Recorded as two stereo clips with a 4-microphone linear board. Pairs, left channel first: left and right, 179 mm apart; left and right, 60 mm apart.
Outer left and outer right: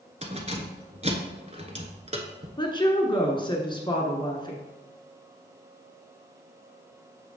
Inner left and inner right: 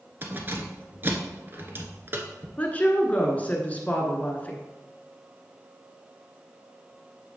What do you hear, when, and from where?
0.2 s keys jangling: 35° right (ahead or behind), 1.0 m
2.6 s a woman speaking: 25° left (ahead or behind), 1.2 m